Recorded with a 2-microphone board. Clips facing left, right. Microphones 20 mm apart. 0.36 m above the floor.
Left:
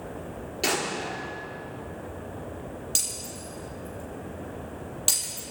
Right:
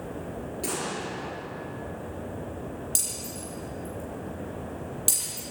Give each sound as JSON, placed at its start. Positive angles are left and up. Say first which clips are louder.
{"t": 0.6, "sound": "an explosion", "louder": "left 5 dB", "side_deg": 45, "distance_m": 4.5}
{"t": 3.0, "sound": "breaking glass", "louder": "left 4 dB", "side_deg": 20, "distance_m": 7.5}